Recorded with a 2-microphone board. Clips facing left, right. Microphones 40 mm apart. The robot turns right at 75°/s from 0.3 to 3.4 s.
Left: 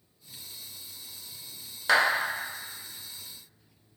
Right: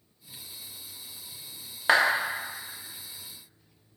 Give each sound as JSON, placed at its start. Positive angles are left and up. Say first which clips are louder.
{"t": 1.9, "sound": "a clap", "louder": "right 1 dB", "side_deg": -25, "distance_m": 0.7}